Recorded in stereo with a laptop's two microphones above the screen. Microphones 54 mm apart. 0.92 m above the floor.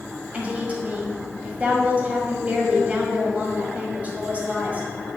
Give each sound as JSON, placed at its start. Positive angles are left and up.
{"t": 0.3, "sound": "a woman speaking", "side_deg": -25, "distance_m": 5.5}